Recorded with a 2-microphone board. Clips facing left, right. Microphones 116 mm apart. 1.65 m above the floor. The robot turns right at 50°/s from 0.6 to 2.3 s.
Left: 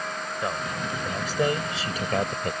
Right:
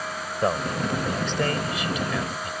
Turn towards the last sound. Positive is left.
turn(degrees=55)